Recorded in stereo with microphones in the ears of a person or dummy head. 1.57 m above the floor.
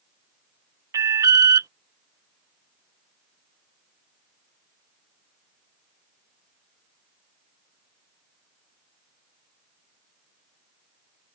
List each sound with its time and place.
0.9 s an alarm: 20° right (ahead or behind)